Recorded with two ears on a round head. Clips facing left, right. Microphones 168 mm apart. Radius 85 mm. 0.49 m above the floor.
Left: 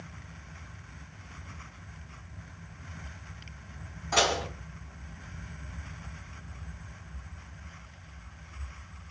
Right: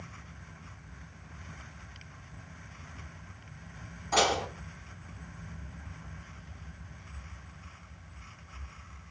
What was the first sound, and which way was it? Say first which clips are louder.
Dishes clattering: even; centre (ahead or behind).